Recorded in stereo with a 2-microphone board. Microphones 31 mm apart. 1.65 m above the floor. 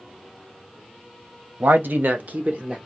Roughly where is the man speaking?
Right.